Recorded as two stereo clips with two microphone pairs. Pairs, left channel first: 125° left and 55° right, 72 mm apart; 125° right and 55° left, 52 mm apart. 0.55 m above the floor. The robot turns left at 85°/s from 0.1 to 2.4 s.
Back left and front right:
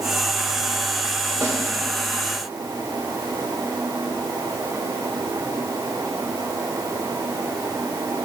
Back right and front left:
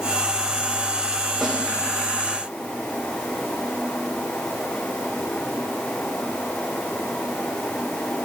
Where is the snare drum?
30° right, 1.6 m; by 1.6 s 45° right, 1.6 m.